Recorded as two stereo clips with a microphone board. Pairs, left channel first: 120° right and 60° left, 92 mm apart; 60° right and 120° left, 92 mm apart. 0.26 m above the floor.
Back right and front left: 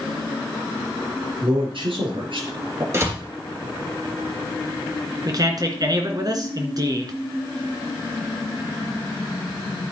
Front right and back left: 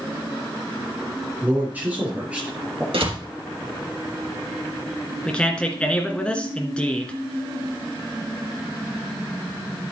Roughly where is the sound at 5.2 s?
Ahead.